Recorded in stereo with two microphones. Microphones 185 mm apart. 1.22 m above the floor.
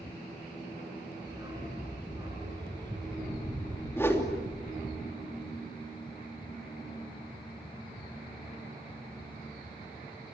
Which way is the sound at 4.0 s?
15° left (ahead or behind).